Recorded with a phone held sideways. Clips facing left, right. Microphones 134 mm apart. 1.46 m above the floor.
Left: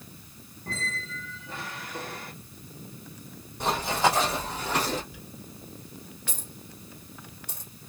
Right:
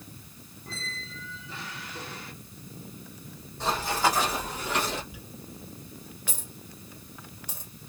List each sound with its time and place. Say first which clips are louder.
0.7 s a squeak: left 6 dB; 50° left (ahead or behind), 0.9 m
3.6 s running footsteps: left 2 dB; 15° left (ahead or behind), 3.5 m; by 5.0 s 40° left (ahead or behind), 3 m
5.1 s a dropped coin: right 1 dB; 10° right (ahead or behind), 2 m